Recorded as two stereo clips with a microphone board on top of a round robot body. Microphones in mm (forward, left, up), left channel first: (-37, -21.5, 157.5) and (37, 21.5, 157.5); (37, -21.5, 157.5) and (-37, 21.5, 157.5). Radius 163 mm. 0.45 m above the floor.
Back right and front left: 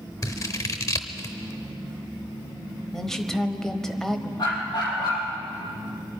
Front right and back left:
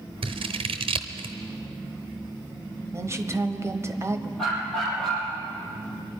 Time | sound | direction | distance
0.2 | scissors | 155° left | 0.9 m
2.9 | a woman speaking | 130° left | 1.3 m
4.4 | a dog barking | 115° right | 5.5 m